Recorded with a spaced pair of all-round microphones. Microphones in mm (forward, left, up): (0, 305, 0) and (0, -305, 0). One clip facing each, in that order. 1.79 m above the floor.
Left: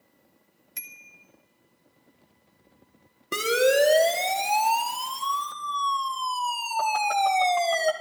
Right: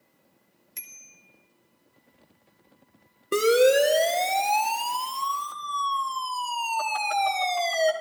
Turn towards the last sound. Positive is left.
turn(degrees=85)